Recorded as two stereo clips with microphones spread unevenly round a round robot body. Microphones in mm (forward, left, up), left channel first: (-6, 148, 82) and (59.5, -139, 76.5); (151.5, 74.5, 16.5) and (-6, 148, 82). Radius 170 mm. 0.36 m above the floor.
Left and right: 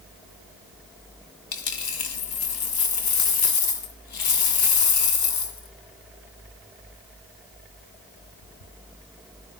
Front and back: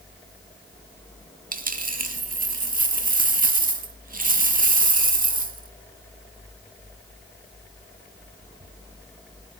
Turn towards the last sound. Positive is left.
turn(degrees=105)